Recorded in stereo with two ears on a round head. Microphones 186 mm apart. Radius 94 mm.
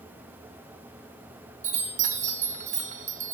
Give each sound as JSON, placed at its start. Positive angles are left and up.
{"t": 1.6, "sound": "a chime", "side_deg": -35, "distance_m": 1.6}